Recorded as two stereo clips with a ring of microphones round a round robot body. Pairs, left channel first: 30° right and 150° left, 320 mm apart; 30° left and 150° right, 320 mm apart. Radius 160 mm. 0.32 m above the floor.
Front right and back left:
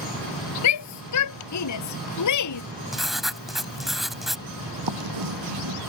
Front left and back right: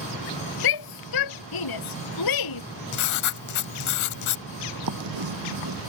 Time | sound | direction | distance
0.6 | a shout | 10° left | ?
2.9 | writing | 60° left | ?
4.9 | writing | 175° left | ?